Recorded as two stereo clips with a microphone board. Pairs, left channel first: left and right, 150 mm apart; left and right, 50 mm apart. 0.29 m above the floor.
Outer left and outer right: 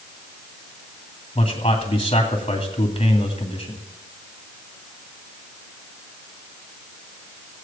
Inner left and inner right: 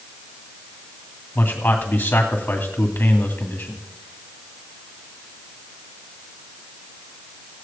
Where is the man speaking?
40° left (ahead or behind), 2.5 m.